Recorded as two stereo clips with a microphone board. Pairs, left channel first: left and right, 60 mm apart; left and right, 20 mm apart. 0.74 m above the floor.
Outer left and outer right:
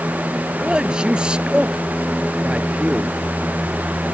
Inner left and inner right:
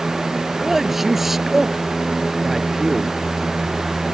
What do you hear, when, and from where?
0.6 s a man speaking: 15° right (ahead or behind); by 3.1 s 20° right (ahead or behind)